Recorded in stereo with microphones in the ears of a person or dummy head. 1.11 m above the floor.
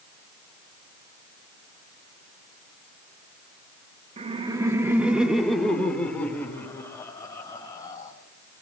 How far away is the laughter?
About 1.1 m.